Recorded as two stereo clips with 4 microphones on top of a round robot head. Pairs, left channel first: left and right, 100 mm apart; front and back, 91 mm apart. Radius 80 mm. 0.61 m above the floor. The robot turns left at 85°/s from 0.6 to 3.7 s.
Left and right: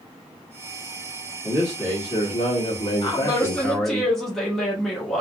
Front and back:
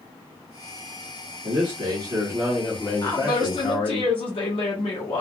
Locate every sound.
1.4 s a man speaking: 170° right, 1.5 m; by 4.0 s straight ahead, 1.5 m
3.0 s a woman speaking: 60° left, 1.1 m; by 5.2 s 5° left, 1.1 m